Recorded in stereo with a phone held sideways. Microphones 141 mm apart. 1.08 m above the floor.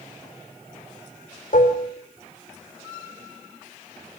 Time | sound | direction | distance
1.5 | dishes clattering | 75° left (ahead or behind) | 2.5 m